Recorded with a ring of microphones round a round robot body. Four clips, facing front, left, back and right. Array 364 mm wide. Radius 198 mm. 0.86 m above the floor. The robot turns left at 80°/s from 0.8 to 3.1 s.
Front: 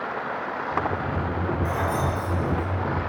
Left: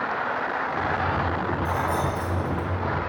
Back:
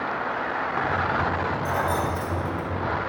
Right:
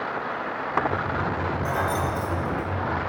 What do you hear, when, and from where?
1.6 s keys jangling: 115° right, 3 m; by 2.7 s 165° left, 3 m